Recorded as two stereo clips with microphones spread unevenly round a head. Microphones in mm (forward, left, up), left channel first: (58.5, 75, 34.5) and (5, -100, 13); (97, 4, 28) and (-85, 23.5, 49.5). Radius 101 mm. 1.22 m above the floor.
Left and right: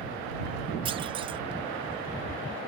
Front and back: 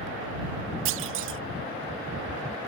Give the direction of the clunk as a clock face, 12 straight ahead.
6 o'clock.